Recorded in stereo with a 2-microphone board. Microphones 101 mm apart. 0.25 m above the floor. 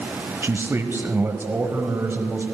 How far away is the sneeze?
I don't hear a sneeze.